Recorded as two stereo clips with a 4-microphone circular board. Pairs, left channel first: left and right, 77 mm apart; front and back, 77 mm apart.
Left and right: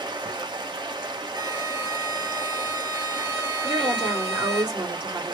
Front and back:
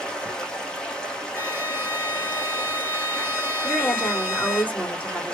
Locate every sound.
0.0 s running water: 80° right, 1.1 m
1.3 s a violin: 60° right, 2.0 m
3.6 s a woman speaking: 70° right, 2 m